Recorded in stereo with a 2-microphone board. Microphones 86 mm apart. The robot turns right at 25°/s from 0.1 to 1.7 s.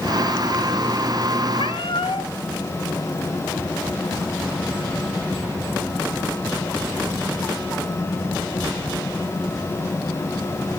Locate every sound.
1.6 s a cat meowing: 80° left, 0.5 m; by 2.3 s 75° left (ahead or behind), 0.5 m